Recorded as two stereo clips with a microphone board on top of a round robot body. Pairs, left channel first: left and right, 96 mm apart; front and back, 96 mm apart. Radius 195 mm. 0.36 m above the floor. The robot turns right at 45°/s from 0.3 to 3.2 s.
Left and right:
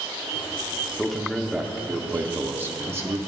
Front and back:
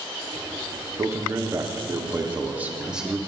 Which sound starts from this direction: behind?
A man speaking, at 1.0 s.